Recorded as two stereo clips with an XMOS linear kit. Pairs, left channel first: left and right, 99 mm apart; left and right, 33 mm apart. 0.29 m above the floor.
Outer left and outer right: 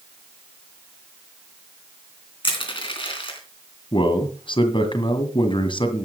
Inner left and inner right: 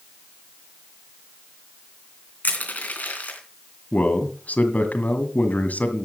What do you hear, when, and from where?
2.4 s crushing: 60° left (ahead or behind), 3.5 m
3.9 s a man speaking: 60° left (ahead or behind), 1.8 m